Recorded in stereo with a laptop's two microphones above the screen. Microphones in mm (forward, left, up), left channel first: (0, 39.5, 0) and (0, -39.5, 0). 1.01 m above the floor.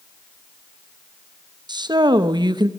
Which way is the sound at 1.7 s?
70° right (ahead or behind).